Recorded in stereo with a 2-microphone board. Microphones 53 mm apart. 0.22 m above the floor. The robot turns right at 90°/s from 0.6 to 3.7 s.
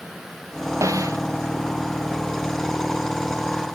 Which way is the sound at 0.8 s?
105° right.